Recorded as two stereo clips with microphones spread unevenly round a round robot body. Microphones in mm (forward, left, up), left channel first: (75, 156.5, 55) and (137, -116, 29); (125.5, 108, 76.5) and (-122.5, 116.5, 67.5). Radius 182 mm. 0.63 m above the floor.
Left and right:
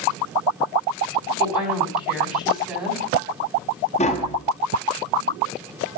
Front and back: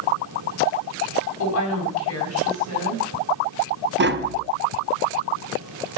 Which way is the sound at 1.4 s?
10° left.